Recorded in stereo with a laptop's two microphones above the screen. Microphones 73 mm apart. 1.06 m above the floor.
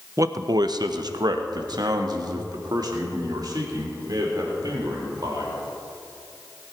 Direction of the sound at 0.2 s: 45° right (ahead or behind).